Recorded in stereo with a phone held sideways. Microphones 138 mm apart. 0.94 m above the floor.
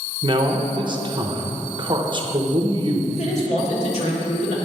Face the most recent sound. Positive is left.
turn(degrees=55)  # may be behind; listen again after turning